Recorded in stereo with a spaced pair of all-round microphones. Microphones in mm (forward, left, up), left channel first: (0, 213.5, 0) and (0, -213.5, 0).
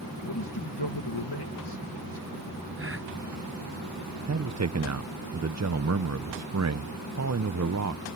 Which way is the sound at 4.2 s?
40° right (ahead or behind).